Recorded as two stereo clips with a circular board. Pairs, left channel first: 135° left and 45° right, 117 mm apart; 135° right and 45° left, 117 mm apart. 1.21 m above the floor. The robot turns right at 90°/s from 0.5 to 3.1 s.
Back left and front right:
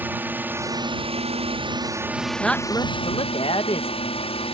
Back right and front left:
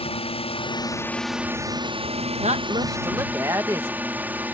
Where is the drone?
115° right; by 4.5 s 120° left.